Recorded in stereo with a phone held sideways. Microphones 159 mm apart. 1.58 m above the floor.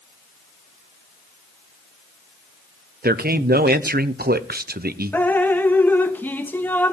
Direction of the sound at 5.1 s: 10° left (ahead or behind).